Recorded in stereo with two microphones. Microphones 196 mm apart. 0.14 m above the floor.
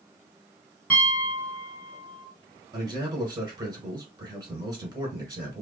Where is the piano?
10° left (ahead or behind), 1.7 m.